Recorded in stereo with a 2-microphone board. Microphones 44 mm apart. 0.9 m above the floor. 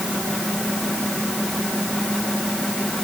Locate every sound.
Only background noise.